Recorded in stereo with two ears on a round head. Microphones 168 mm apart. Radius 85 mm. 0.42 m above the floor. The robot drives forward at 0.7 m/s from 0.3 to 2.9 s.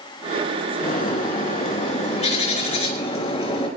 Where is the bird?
50° left (ahead or behind), 3.5 m; by 3.7 s 35° left (ahead or behind), 4.5 m.